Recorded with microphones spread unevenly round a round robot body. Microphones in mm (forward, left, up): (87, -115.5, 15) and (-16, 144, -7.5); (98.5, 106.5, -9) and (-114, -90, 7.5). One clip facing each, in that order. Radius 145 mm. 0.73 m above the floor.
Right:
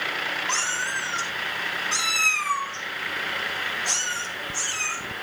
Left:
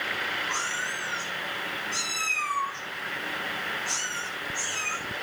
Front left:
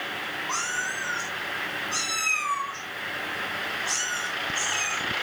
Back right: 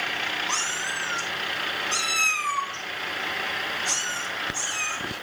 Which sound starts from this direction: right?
A cat meowing, at 0.5 s.